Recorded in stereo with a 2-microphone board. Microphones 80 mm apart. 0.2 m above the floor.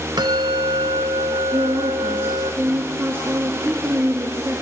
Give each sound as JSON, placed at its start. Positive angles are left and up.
{"t": 0.2, "sound": "a bell", "side_deg": -75, "distance_m": 0.7}
{"t": 1.5, "sound": "a woman speaking", "side_deg": -30, "distance_m": 3.0}